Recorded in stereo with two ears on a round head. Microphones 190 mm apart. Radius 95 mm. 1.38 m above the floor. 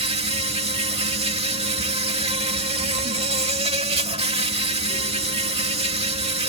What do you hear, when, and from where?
0.0 s an insect: 30° right (ahead or behind)